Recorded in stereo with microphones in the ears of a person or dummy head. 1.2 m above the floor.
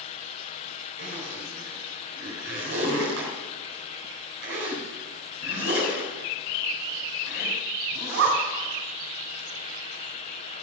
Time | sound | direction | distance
1.0 | a zipper | 60° right (ahead or behind) | 4 m